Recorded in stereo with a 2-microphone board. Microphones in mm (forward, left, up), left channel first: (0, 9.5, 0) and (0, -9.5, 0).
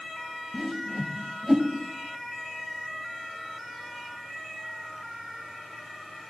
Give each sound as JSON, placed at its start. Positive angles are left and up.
{"t": 0.5, "sound": "a whoosh", "side_deg": 20, "distance_m": 1.2}